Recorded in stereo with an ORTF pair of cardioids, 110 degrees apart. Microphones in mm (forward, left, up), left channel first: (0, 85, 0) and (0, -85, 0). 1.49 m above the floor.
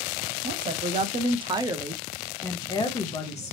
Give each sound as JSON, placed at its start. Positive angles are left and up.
{"t": 0.4, "sound": "a woman speaking", "azimuth_deg": -60, "distance_m": 1.0}